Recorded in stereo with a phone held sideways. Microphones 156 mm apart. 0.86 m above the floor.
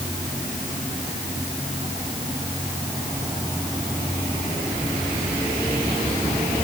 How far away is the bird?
No bird in this recording.